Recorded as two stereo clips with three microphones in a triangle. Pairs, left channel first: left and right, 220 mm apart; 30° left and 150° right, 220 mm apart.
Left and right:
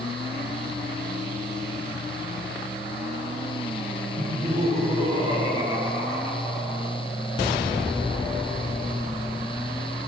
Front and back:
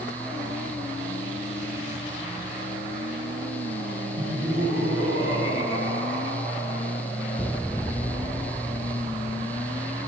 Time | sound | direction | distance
4.2 | laughter | 135° right | 4 m